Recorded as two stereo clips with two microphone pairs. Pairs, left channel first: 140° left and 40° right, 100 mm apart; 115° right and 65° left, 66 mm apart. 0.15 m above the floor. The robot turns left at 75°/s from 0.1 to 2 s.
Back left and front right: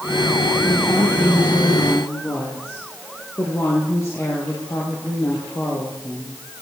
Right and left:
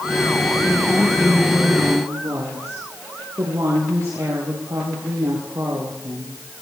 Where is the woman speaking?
175° right, 4 m; by 6.4 s 85° left, 4 m.